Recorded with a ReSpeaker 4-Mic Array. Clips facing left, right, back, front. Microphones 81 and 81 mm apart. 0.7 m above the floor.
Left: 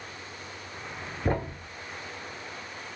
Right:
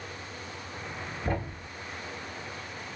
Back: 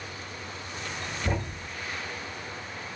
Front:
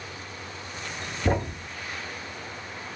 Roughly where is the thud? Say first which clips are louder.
Left 4 dB, front 7 dB; ahead left.